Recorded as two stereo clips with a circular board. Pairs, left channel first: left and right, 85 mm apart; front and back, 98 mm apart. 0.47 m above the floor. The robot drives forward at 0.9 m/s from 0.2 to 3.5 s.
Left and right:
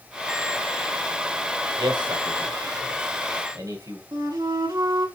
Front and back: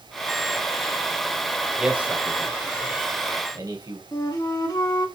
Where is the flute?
50° right, 2.5 m.